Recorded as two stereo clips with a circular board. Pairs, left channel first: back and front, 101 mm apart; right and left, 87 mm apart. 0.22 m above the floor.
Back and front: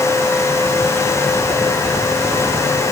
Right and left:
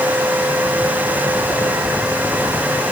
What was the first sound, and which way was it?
Only background noise.